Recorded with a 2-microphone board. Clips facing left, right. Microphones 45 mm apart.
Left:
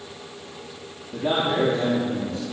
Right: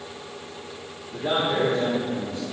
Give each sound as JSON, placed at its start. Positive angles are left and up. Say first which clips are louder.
{"t": 1.1, "sound": "a man speaking", "louder": "left 1 dB", "side_deg": 50, "distance_m": 4.0}